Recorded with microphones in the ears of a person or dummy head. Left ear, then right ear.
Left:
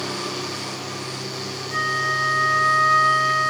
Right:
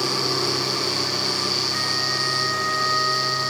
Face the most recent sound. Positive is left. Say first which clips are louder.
# left 1 dB
turn(degrees=60)  # may be behind; listen again after turning